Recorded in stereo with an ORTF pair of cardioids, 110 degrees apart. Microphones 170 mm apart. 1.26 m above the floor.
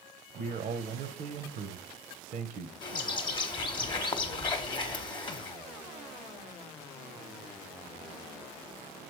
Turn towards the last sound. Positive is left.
turn(degrees=30)